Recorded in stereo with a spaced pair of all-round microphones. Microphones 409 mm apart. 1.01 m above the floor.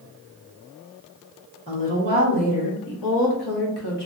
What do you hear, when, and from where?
1.7 s a woman speaking: 15° left (ahead or behind), 1.1 m; by 4.1 s 80° left, 1.1 m